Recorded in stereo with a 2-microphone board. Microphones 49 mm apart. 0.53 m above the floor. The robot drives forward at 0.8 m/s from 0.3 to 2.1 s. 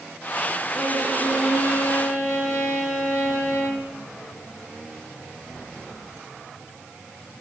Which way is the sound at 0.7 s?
25° left (ahead or behind).